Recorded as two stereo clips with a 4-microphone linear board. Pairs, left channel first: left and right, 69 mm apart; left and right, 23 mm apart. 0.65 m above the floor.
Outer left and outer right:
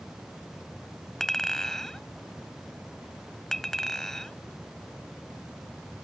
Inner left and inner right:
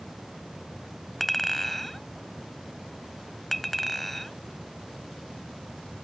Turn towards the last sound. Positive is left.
turn(degrees=5)  # may be behind; listen again after turning